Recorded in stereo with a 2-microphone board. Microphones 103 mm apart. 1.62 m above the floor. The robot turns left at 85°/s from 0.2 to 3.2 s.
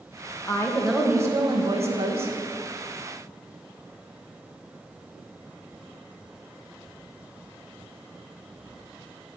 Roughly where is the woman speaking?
Ahead left.